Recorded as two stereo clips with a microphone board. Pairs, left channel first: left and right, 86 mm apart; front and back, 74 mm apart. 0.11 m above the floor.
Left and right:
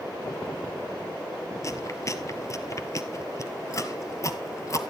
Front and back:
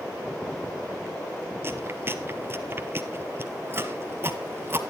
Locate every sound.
1.6 s chewing: 130° left, 0.9 m